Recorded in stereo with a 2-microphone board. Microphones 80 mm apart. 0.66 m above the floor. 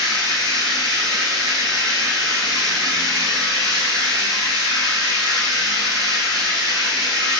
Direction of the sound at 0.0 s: 60° right (ahead or behind).